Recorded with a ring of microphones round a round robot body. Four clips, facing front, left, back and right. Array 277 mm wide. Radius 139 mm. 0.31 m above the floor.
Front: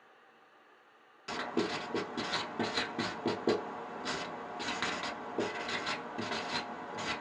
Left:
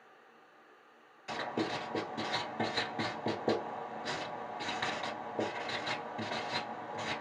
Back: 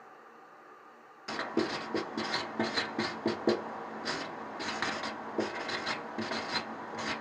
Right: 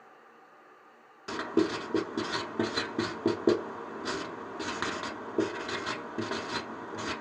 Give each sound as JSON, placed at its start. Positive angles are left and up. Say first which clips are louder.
{"t": 1.3, "sound": "writing", "louder": "right 7 dB, back 2 dB", "azimuth_deg": -100, "distance_m": 1.0}